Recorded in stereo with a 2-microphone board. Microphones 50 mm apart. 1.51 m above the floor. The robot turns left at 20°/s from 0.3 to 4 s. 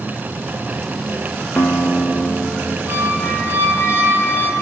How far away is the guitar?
About 1.0 m.